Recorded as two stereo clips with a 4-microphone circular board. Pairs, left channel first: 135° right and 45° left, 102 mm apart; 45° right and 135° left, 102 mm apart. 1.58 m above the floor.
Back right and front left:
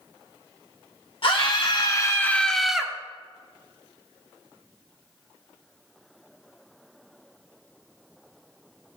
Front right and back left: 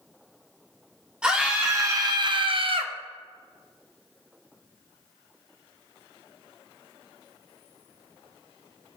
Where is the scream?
145° right, 1.0 m; by 2.9 s 125° left, 0.9 m.